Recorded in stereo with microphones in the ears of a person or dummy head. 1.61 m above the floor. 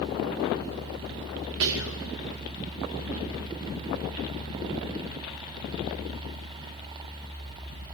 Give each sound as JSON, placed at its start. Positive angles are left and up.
{"t": 1.6, "sound": "whispering", "side_deg": -65, "distance_m": 0.6}